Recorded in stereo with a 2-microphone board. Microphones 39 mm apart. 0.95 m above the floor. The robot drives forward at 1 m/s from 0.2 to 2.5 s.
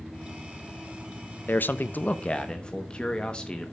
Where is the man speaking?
50° left (ahead or behind), 0.6 m; by 3.7 s 25° left (ahead or behind), 0.9 m.